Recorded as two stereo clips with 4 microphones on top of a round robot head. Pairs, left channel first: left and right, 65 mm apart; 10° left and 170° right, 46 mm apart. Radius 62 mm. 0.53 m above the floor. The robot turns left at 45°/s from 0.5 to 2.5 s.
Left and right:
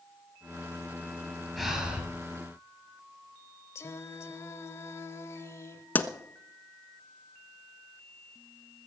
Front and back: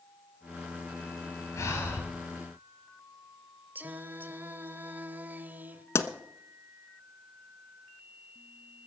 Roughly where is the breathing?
Ahead.